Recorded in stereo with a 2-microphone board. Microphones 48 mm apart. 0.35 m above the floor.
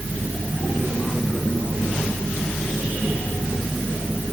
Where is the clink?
I don't hear a clink.